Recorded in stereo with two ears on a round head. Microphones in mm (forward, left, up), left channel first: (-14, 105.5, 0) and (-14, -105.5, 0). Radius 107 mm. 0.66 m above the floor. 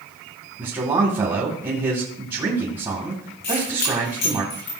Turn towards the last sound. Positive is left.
turn(degrees=50)  # may be behind; listen again after turning